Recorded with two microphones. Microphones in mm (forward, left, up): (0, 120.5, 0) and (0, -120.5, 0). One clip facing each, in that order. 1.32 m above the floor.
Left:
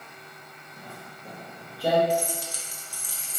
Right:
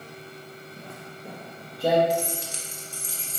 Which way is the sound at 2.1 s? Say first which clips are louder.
Even; 25° right (ahead or behind).